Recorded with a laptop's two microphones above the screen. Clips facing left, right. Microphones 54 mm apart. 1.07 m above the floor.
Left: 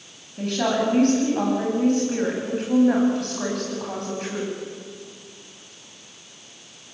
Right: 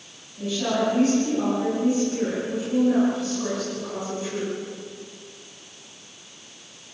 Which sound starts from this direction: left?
A woman speaking, at 0.4 s.